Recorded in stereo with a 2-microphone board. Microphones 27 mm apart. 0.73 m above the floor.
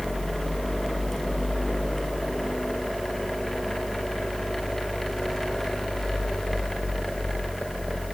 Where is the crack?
I don't hear a crack.